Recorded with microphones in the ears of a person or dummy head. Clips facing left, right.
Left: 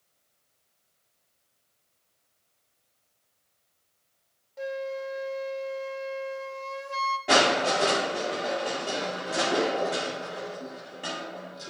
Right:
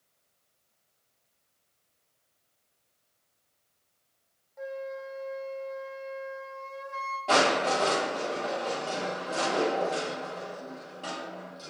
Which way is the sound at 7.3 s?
25° left (ahead or behind).